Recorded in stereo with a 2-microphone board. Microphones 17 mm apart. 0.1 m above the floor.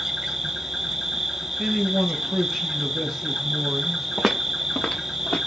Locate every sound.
0.0 s an insect: 30° right (ahead or behind), 2 m
1.6 s a man speaking: 5° right (ahead or behind), 1.8 m
4.2 s footsteps: 15° right (ahead or behind), 0.6 m; by 5.4 s 60° left (ahead or behind), 1.6 m